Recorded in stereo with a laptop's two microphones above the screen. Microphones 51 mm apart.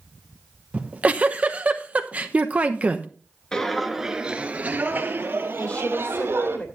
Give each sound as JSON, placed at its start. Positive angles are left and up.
{"t": 0.7, "sound": "a giggle", "side_deg": -25, "distance_m": 1.0}
{"t": 3.5, "sound": "footsteps", "side_deg": 10, "distance_m": 0.9}
{"t": 5.6, "sound": "a woman speaking", "side_deg": 40, "distance_m": 2.0}